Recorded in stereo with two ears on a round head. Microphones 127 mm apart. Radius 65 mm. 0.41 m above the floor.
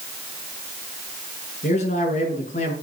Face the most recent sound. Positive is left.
turn(degrees=50)  # may be behind; listen again after turning